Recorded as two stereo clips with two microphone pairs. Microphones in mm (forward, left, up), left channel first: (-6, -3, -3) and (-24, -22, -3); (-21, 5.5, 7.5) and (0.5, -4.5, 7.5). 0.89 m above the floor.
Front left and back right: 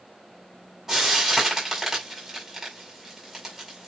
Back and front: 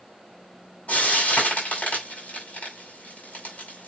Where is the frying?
160° left, 6.5 m.